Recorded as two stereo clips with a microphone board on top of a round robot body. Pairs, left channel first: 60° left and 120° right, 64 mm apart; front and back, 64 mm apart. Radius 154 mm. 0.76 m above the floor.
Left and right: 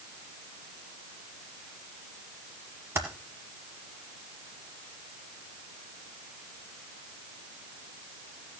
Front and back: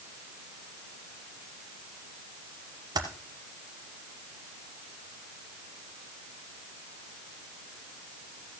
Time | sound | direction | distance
3.0 | typing on a keyboard | 170° right | 1.1 m